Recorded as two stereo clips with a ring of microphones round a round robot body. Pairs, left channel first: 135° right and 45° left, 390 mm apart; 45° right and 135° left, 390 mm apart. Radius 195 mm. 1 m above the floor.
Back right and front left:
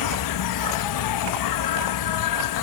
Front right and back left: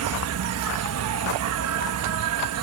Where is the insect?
175° right.